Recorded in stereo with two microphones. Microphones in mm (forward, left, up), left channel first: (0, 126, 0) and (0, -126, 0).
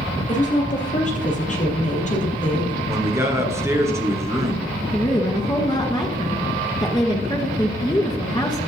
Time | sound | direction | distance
0.3 | a woman speaking | 30° left (ahead or behind) | 4 m
2.9 | a man speaking | 10° right (ahead or behind) | 3 m
4.9 | a woman speaking | 20° left (ahead or behind) | 2 m